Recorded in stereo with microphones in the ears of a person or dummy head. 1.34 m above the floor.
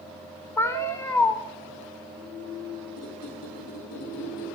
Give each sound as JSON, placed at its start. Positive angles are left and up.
{"t": 0.6, "sound": "a cat meowing", "side_deg": 10, "distance_m": 0.8}
{"t": 3.0, "sound": "a squeak", "side_deg": 80, "distance_m": 9.0}